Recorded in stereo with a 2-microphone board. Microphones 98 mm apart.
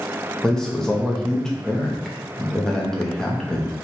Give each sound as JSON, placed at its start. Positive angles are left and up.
{"t": 0.4, "sound": "a man speaking", "side_deg": 5, "distance_m": 0.7}